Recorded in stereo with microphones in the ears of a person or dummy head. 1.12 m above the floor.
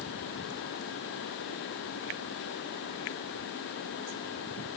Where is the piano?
I don't hear a piano.